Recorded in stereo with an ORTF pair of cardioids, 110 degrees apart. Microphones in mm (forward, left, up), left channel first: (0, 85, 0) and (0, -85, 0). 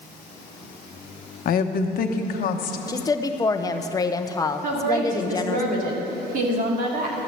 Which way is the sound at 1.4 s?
60° left.